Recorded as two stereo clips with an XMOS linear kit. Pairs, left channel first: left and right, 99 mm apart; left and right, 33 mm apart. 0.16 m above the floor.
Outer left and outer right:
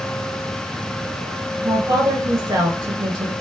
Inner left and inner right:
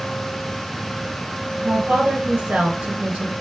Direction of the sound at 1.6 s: 45° right (ahead or behind).